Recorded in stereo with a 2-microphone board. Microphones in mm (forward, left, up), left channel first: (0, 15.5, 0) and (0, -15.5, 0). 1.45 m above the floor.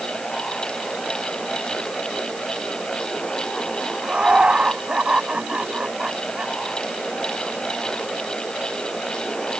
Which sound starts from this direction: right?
Laughter, at 4.0 s.